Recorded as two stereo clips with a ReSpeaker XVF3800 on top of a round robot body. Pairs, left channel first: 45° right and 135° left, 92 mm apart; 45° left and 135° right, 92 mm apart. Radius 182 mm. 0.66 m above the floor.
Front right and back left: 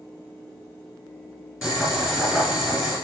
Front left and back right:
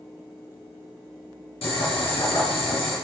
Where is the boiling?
50° left, 2 m.